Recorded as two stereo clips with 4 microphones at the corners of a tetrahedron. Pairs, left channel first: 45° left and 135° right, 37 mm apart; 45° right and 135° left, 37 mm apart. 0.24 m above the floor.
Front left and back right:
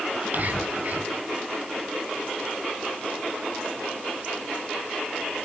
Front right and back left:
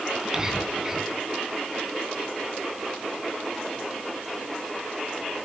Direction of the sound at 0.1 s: 155° right.